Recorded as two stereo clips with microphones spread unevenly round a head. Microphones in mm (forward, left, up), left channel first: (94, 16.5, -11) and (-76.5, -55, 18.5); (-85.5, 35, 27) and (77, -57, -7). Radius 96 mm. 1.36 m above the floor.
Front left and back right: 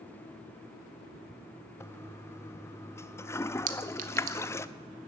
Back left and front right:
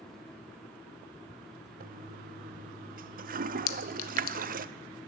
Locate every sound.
1.8 s a toilet flushing: 45° right, 0.5 m
3.7 s a clink: 155° left, 1.0 m